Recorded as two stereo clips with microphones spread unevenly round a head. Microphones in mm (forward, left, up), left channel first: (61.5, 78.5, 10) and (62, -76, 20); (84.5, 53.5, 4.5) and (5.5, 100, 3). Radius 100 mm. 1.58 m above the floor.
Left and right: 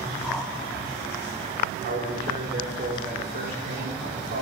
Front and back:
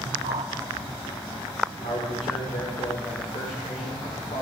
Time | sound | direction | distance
0.2 | a whoosh | straight behind | 0.8 m
1.8 | a man speaking | 70° right | 5.5 m